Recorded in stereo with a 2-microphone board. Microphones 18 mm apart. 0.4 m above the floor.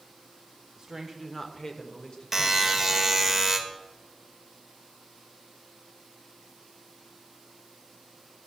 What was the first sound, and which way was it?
A woman speaking, 25° right (ahead or behind).